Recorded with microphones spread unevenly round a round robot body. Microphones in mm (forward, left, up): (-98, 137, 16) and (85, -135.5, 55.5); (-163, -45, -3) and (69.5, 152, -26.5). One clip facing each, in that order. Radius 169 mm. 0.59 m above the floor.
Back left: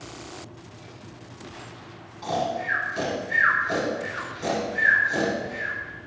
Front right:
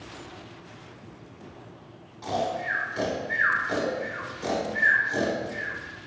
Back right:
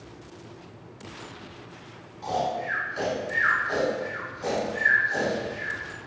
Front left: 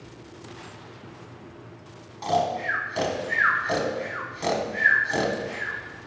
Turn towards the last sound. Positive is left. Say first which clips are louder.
# back left 1 dB, front left 3 dB
turn(degrees=30)